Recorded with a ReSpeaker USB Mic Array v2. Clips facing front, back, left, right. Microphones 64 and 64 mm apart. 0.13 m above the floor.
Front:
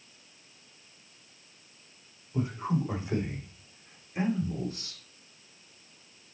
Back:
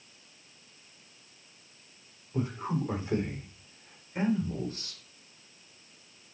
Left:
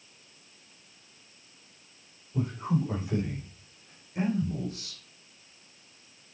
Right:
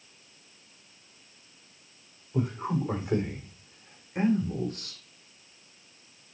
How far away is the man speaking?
About 9.5 m.